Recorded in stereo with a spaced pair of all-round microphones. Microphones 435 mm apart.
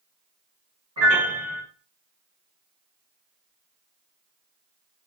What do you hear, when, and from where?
1.0 s a piano: 30° right (ahead or behind), 1.2 m